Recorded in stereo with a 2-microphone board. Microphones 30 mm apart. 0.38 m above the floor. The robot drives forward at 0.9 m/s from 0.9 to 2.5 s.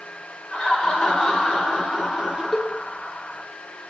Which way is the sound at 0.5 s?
15° left (ahead or behind).